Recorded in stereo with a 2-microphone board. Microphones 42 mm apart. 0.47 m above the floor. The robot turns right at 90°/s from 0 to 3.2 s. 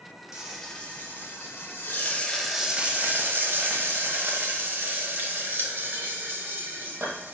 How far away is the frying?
About 0.7 m.